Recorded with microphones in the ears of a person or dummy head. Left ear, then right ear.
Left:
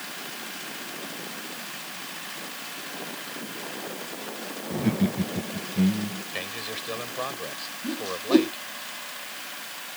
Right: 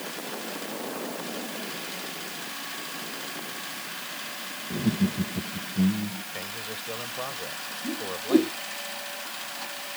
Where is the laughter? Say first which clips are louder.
Left 2 dB; 50° left (ahead or behind).